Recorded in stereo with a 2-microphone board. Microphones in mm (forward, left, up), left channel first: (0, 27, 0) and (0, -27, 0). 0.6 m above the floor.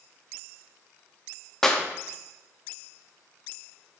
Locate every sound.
1.6 s a clap: 5° left (ahead or behind), 0.7 m